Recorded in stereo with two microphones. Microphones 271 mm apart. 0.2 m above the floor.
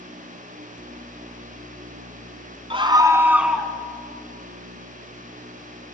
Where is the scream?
20° right (ahead or behind), 1.8 m; by 3.7 s centre (ahead or behind), 1.9 m.